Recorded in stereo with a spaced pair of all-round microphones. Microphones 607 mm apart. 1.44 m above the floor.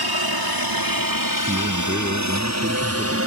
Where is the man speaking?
15° right (ahead or behind).